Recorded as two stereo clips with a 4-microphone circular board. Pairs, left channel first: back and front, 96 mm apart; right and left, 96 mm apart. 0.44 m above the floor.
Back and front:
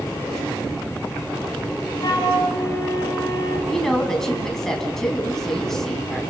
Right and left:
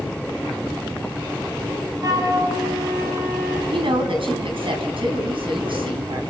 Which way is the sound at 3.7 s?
95° left.